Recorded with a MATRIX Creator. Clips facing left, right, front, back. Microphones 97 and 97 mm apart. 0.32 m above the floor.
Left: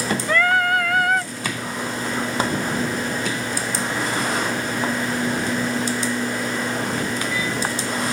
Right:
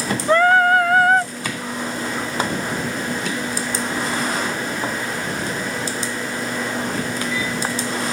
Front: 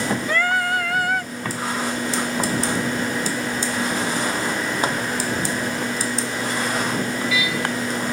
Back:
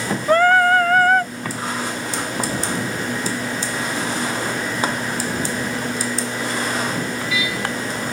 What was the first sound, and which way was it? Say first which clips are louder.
Singing: right 6 dB, back 11 dB; 140° right.